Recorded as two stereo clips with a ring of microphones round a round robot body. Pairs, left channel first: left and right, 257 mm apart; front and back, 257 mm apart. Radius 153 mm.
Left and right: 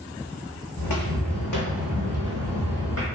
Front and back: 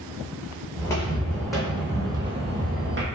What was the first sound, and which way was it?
Footsteps, 80° left.